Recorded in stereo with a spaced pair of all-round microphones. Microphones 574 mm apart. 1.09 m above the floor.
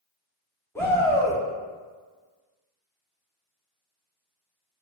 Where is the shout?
5° left (ahead or behind), 0.7 m.